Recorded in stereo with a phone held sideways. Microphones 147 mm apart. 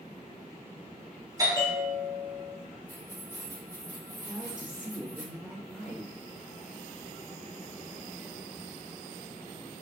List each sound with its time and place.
1.4 s a bell: 25° right (ahead or behind), 1.5 m
2.9 s keys jangling: 20° right (ahead or behind), 2.5 m
4.2 s a woman speaking: 5° right (ahead or behind), 2.5 m